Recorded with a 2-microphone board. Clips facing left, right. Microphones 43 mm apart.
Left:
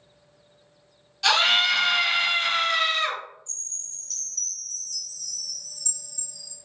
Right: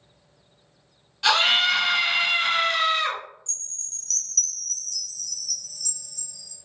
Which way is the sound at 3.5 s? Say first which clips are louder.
Right 2 dB; 70° right (ahead or behind).